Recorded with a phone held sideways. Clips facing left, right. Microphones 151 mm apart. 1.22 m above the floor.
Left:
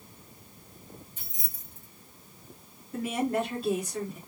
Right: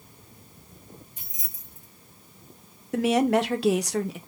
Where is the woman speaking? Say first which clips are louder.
Right 7 dB; 80° right, 0.6 m.